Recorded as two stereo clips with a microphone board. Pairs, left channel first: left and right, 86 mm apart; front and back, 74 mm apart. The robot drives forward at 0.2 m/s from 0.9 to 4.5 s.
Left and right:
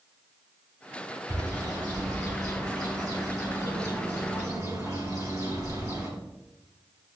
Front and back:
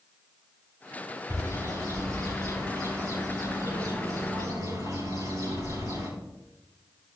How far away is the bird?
About 7.5 m.